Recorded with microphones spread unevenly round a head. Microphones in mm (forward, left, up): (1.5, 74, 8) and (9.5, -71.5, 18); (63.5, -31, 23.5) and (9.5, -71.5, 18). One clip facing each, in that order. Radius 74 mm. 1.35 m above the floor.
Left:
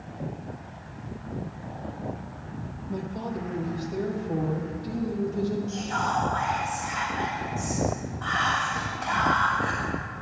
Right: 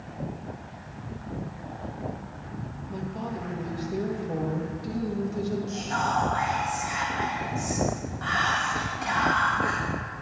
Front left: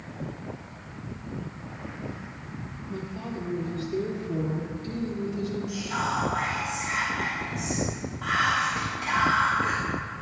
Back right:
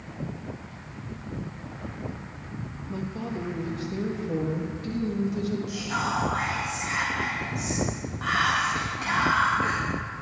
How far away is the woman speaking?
About 1.7 m.